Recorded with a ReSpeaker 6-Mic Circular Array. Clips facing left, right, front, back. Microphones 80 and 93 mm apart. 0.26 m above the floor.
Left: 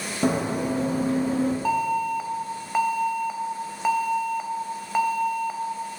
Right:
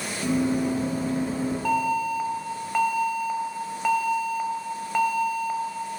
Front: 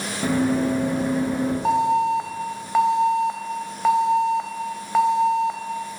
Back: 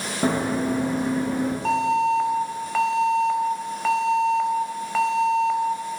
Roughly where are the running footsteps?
Behind left.